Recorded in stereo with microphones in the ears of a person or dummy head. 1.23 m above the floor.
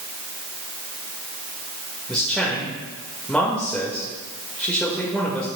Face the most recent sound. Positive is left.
turn(degrees=0)  # may be behind; listen again after turning